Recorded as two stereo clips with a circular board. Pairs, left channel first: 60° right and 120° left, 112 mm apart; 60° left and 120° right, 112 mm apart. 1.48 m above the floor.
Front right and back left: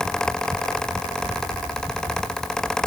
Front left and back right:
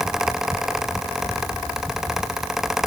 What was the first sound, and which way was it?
Only background noise.